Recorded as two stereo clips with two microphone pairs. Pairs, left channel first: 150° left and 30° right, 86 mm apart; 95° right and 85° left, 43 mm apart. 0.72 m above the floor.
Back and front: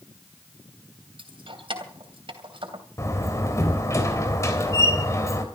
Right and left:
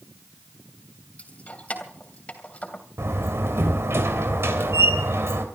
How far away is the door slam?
About 2.5 m.